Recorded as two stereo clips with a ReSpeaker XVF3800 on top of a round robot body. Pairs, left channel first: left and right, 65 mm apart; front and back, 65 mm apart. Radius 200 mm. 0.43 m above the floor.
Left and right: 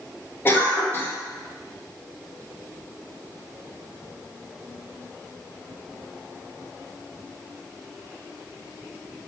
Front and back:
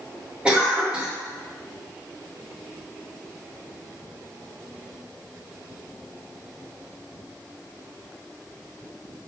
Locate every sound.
0.5 s a cough: 115° left, 1.4 m